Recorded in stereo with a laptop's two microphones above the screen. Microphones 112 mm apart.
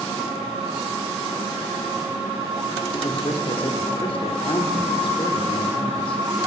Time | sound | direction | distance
2.9 | a man speaking | 55° left (ahead or behind) | 3.5 m